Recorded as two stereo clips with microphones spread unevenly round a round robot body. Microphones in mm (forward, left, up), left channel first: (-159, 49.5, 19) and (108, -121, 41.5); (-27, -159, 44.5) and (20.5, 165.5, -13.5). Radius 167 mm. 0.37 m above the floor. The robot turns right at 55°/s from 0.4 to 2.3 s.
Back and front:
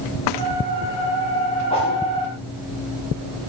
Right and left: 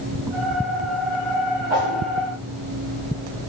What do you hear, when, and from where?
1.7 s a whoosh: 70° left, 6.5 m; by 2.0 s 90° left, 6.5 m